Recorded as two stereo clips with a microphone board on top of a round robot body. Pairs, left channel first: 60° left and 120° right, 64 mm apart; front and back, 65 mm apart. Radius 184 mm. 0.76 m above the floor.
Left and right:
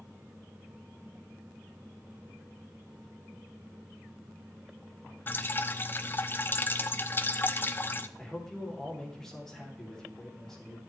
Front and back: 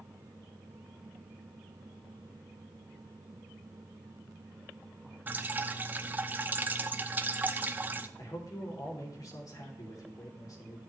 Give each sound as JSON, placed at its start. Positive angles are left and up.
{"t": 5.3, "sound": "dripping", "azimuth_deg": 120, "distance_m": 0.7}
{"t": 8.2, "sound": "a man speaking", "azimuth_deg": -25, "distance_m": 3.5}